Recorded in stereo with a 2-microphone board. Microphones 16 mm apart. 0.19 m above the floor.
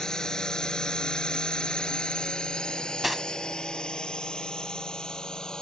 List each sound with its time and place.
0.0 s a drone: 45° left (ahead or behind); by 5.6 s 55° left (ahead or behind)
2.7 s cutlery clinking: 10° right (ahead or behind)